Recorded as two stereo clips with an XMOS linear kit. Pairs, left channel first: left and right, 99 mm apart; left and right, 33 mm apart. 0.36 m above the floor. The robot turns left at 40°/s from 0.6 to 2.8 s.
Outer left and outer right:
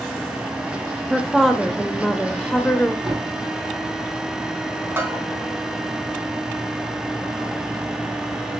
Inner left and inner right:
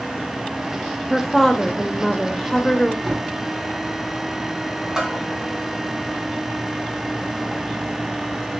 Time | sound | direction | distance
1.1 | a woman speaking | 5° right (ahead or behind) | 1.1 m
3.0 | a thud | 5° right (ahead or behind) | 4 m
5.0 | a bell | 20° right (ahead or behind) | 3.5 m